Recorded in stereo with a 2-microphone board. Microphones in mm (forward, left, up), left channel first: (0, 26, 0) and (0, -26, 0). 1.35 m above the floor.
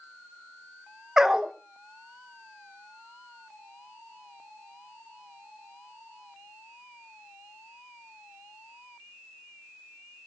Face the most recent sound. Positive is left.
turn(degrees=-10)  # may be behind; listen again after turning